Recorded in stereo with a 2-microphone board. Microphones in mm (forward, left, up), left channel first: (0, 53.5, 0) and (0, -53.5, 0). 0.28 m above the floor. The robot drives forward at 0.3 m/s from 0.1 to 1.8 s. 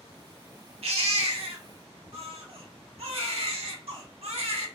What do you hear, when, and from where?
0.8 s a baby crying: 70° right (ahead or behind), 0.7 m; by 4.7 s 65° right (ahead or behind), 0.7 m